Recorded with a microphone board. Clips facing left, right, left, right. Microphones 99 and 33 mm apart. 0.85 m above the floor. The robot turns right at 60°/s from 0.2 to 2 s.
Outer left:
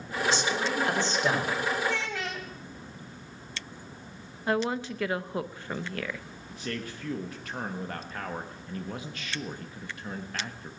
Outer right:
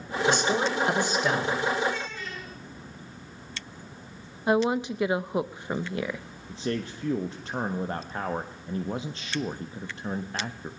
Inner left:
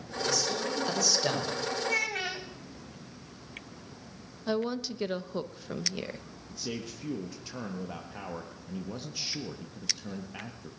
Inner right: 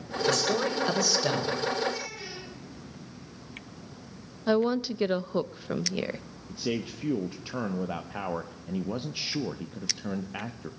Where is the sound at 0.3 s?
60° right, 4.5 m; by 1.7 s 25° left, 4.5 m.